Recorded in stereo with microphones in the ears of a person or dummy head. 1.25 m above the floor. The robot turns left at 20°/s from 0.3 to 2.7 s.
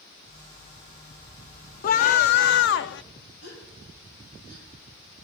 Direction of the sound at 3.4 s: 80° left.